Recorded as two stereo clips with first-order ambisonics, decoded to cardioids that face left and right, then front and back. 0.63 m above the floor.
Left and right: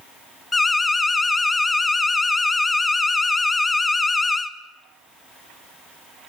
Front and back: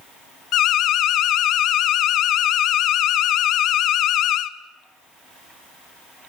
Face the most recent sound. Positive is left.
turn(degrees=15)